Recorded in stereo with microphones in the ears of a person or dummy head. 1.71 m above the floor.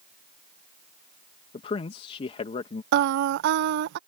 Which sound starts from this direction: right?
Singing, at 2.9 s.